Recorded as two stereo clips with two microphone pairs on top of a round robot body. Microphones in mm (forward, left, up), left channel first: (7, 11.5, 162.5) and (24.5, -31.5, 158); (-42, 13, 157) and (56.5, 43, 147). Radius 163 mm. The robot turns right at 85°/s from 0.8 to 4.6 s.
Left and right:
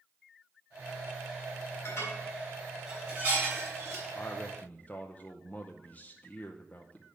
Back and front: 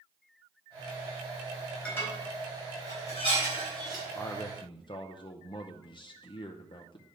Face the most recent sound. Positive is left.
turn(degrees=165)